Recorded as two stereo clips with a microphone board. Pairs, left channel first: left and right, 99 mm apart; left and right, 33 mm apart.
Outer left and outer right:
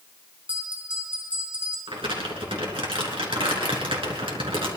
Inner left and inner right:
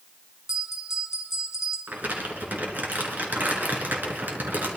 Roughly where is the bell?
Centre.